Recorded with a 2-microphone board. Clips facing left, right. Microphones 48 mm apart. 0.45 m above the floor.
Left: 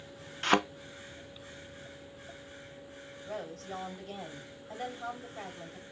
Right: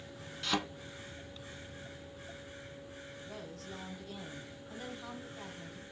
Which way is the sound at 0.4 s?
55° left (ahead or behind).